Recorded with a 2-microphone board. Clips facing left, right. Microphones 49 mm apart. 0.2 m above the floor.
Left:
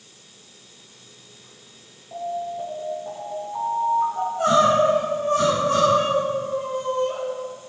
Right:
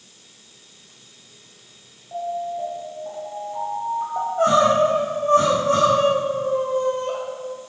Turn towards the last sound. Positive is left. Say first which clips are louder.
# right 5 dB
turn(degrees=-40)  # may be behind; listen again after turning